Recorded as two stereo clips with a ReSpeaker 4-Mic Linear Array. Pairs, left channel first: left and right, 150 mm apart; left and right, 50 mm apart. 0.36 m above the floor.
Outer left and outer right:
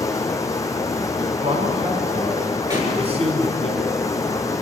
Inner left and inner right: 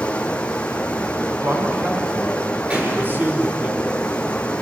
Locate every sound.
0.0 s running water: 20° left (ahead or behind), 1.6 m
1.3 s a man speaking: 40° right (ahead or behind), 4 m
2.7 s a pop: 30° right (ahead or behind), 7 m